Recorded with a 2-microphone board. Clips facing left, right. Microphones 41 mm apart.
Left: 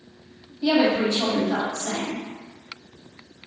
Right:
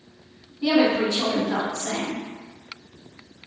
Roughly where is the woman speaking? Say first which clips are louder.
Even; right.